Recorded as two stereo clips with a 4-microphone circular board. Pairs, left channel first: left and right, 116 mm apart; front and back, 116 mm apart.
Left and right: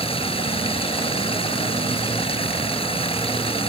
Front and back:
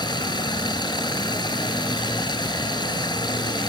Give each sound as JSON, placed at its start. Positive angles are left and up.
{"t": 0.0, "sound": "running water", "azimuth_deg": 50}